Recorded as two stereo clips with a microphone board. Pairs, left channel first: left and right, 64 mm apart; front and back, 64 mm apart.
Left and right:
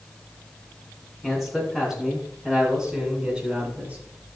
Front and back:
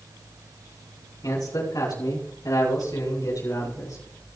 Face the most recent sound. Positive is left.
turn(degrees=-25)